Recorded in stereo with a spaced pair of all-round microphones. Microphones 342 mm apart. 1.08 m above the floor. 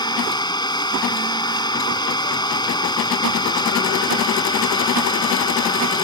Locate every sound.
0.0 s an engine running: 10° left (ahead or behind)